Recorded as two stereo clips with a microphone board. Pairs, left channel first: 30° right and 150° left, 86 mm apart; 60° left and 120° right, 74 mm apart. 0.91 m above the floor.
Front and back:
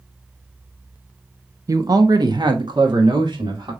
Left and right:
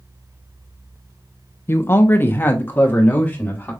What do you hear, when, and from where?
1.7 s a man speaking: 110° left, 0.6 m; by 3.7 s 125° left, 2.0 m